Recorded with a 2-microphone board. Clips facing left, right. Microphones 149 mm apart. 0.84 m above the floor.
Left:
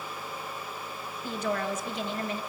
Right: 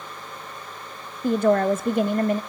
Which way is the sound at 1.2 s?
50° right (ahead or behind).